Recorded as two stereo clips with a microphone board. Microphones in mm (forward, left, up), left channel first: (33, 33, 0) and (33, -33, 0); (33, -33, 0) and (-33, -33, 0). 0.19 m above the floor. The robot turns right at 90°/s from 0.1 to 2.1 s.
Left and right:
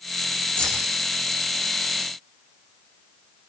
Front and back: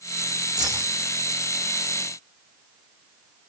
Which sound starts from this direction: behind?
Keys jangling, at 0.6 s.